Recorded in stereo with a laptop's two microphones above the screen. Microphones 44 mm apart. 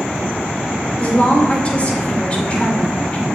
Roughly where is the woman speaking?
Left.